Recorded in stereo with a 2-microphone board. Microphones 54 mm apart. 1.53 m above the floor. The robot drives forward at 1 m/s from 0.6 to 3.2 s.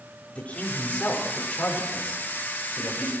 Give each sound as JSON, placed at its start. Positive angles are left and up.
{"t": 0.3, "sound": "a man speaking", "side_deg": 30, "distance_m": 5.0}